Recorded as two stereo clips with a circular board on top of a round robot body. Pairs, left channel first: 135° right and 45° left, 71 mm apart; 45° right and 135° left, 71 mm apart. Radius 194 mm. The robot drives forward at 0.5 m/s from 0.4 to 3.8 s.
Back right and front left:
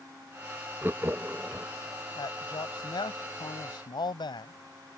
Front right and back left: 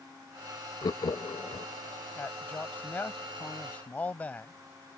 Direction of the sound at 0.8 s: 15° right.